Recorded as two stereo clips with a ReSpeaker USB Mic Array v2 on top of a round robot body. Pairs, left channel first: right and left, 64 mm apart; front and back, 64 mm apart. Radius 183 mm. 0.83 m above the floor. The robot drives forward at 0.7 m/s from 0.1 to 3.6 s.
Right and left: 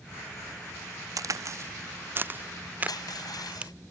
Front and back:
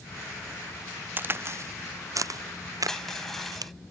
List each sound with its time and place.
1.2 s a crack: 120° left; by 3.7 s 160° left
2.9 s crushing: 85° right; by 3.7 s 90° right